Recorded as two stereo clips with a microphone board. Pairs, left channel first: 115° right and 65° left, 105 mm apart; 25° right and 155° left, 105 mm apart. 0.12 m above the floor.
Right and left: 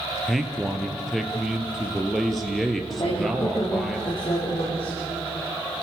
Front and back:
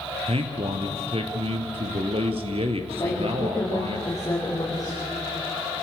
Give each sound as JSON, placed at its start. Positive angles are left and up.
{"t": 0.3, "sound": "a man speaking", "azimuth_deg": 155, "distance_m": 2.5}
{"t": 3.0, "sound": "a woman speaking", "azimuth_deg": -80, "distance_m": 6.5}